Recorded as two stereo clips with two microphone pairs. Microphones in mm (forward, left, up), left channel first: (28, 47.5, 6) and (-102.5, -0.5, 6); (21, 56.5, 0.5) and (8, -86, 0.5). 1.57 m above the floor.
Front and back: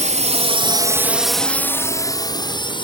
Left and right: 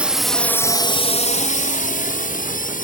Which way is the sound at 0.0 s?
175° right.